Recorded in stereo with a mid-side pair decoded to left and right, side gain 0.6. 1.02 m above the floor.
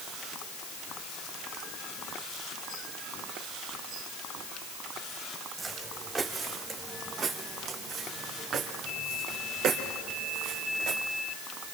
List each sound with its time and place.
5.6 s footsteps: 20° right, 4 m; by 11.0 s 75° right, 4.5 m